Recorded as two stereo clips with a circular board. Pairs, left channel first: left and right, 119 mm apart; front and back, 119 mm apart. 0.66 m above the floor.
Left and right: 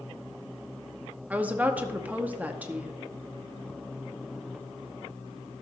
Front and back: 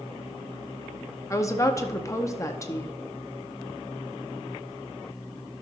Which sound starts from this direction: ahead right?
A woman speaking, at 1.3 s.